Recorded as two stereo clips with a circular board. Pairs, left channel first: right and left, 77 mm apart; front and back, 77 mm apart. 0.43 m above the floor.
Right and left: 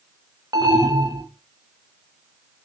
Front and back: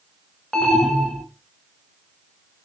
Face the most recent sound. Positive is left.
turn(degrees=80)